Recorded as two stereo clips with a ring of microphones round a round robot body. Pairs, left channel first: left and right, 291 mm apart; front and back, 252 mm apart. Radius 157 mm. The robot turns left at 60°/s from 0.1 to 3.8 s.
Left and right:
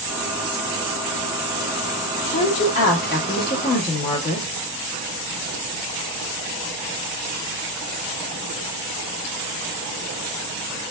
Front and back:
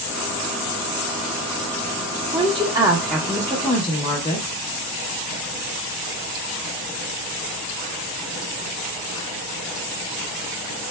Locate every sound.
2.3 s a woman speaking: 145° left, 0.8 m; by 4.5 s 55° left, 0.8 m